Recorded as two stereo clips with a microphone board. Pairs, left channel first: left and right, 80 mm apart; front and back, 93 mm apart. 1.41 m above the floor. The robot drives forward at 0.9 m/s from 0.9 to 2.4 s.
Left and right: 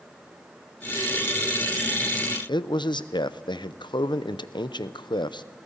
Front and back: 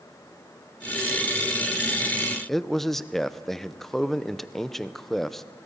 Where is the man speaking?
85° left, 0.7 m.